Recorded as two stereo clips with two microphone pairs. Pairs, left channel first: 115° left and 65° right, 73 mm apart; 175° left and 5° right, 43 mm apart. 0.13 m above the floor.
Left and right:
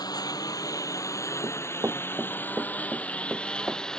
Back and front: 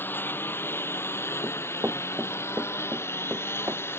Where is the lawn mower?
140° left; by 4.0 s 165° right.